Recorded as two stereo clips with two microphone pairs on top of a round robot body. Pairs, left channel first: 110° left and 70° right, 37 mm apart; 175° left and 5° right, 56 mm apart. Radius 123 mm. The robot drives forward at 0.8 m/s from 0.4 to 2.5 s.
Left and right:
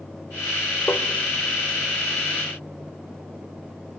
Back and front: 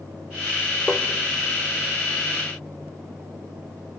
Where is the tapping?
95° left, 1.6 m; by 1.1 s 105° left, 1.6 m.